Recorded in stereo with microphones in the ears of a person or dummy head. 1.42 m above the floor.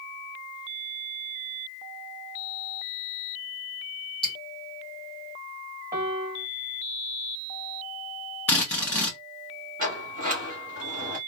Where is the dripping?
5° left (ahead or behind), 1.7 m.